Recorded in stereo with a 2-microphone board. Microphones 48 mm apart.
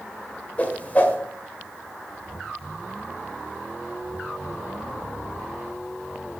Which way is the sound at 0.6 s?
35° left (ahead or behind).